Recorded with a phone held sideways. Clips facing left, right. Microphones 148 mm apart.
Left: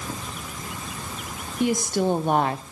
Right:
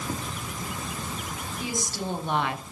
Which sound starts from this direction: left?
A woman speaking, at 1.6 s.